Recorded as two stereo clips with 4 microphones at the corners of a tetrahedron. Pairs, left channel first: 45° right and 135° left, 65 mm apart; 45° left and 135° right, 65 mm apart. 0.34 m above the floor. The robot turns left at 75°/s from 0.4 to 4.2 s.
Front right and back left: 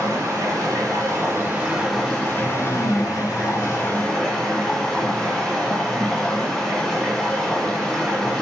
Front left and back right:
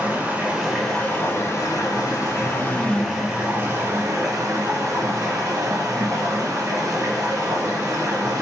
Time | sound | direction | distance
0.0 | running water | 155° left | 1.8 m